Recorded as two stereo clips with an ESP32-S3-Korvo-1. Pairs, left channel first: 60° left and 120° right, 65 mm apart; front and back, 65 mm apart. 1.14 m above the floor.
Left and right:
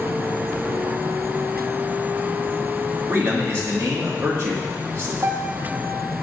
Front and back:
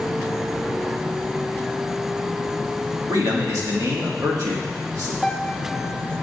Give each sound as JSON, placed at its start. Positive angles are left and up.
{"t": 3.1, "sound": "a man speaking", "azimuth_deg": -165, "distance_m": 1.9}
{"t": 5.2, "sound": "a piano", "azimuth_deg": -90, "distance_m": 0.7}